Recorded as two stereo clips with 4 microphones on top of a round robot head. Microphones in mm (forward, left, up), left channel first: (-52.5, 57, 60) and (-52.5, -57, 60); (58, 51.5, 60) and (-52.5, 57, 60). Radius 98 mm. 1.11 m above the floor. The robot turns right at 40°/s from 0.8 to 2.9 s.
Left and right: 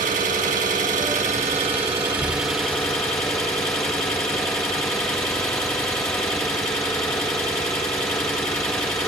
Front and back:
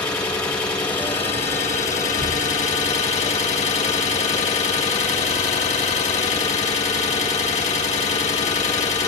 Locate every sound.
0.0 s an engine running: 70° right, 1.8 m; by 9.1 s 15° left, 1.8 m